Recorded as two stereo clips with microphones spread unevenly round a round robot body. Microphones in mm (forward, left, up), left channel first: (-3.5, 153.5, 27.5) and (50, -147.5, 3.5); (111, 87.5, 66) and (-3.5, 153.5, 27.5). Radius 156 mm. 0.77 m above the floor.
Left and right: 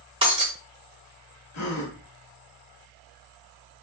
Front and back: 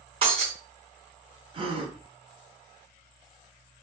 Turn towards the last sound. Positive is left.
turn(degrees=130)